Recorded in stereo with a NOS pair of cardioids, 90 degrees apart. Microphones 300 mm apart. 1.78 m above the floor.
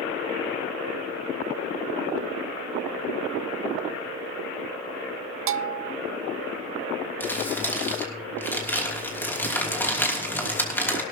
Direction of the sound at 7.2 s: 5° left.